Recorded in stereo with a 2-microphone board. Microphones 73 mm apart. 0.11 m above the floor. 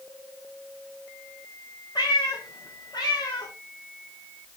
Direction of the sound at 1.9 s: 70° left (ahead or behind).